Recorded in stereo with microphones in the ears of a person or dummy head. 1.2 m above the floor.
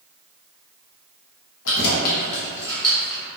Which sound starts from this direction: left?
Keys jangling, at 1.6 s.